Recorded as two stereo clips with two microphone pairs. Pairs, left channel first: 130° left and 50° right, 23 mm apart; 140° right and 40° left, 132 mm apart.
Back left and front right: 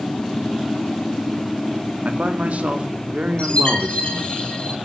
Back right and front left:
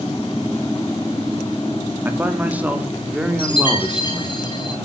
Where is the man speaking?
35° right, 2.0 m; by 4.4 s 45° right, 3 m.